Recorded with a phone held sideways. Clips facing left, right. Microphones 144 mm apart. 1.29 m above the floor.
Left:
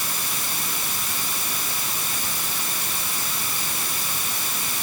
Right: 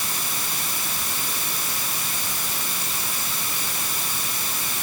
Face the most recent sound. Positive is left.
No sound to turn to.